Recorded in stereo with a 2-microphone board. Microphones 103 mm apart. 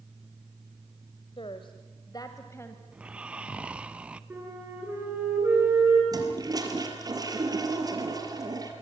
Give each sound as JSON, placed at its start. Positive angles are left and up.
{"t": 1.4, "sound": "a woman speaking", "side_deg": 55, "distance_m": 1.5}
{"t": 2.9, "sound": "snoring", "side_deg": -10, "distance_m": 0.8}
{"t": 4.3, "sound": "a flute", "side_deg": -20, "distance_m": 8.0}
{"t": 6.1, "sound": "a toilet flushing", "side_deg": -35, "distance_m": 3.5}